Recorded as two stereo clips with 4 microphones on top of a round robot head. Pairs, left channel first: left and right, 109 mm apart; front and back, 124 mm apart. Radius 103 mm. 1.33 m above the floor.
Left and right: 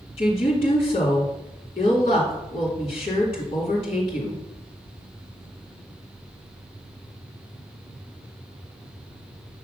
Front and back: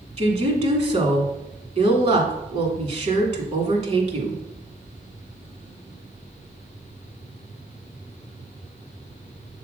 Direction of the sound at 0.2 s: 145° left.